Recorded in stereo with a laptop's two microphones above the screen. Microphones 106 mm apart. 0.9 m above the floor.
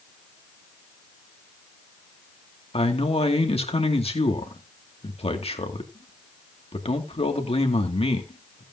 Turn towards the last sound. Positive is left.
turn(degrees=65)  # may be behind; listen again after turning